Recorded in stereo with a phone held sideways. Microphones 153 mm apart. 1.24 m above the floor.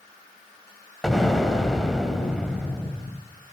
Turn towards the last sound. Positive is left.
turn(degrees=0)  # may be behind; listen again after turning